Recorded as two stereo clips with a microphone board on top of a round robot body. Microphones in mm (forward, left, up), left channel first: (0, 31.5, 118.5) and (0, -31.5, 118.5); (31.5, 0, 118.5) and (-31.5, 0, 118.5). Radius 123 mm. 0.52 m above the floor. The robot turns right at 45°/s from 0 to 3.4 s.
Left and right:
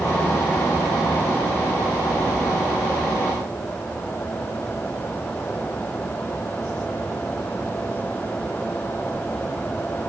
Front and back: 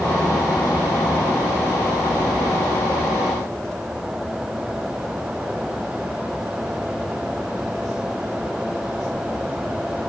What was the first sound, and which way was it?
Only background noise.